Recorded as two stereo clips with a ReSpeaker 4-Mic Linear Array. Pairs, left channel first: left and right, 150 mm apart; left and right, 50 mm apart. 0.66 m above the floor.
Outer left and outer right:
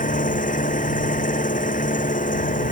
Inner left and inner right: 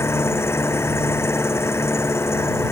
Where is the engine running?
60° left (ahead or behind).